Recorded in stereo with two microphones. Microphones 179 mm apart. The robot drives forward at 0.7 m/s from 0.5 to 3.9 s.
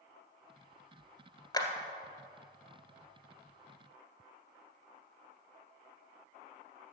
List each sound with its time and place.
1.5 s a clap: 25° left (ahead or behind), 1.5 m; by 1.7 s 20° left (ahead or behind), 1.6 m